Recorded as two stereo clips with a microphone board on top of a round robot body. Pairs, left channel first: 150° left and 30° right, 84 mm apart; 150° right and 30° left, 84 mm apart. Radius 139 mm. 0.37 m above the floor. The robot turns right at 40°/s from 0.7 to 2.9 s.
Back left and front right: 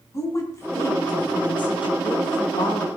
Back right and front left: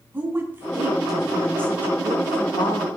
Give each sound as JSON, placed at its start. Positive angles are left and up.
{"t": 0.1, "sound": "a woman speaking", "azimuth_deg": 95, "distance_m": 4.0}